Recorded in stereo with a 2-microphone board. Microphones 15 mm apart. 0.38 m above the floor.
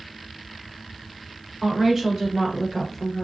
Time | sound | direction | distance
1.6 | a woman speaking | 40° right (ahead or behind) | 1.1 m